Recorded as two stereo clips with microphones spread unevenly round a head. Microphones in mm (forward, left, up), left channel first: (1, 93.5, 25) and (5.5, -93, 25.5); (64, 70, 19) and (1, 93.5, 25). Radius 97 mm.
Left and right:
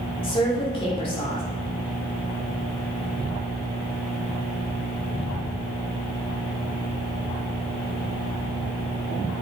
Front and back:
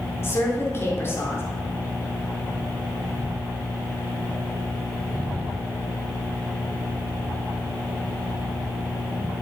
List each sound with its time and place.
0.2 s a woman speaking: 30° left, 3.5 m